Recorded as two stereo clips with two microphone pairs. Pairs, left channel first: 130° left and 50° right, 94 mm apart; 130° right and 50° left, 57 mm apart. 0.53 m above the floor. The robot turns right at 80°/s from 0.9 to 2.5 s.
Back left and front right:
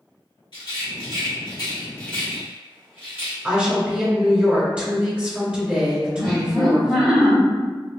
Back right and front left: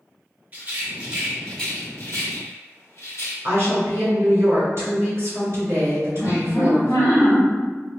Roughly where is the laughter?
Behind right.